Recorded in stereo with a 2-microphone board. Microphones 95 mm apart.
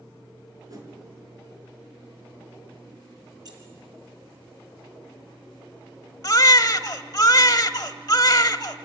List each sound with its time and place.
0.7 s a whoosh: 40° right (ahead or behind), 4.5 m
3.5 s keys jangling: 45° right (ahead or behind), 4 m
6.2 s a baby crying: 40° left (ahead or behind), 0.7 m